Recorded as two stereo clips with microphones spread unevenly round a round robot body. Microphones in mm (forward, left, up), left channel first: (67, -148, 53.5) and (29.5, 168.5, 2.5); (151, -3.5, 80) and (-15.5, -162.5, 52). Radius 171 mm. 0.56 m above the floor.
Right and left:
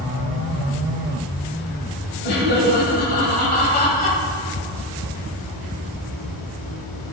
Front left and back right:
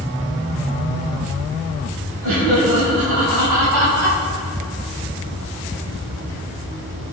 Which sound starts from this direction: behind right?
Laughter, at 2.2 s.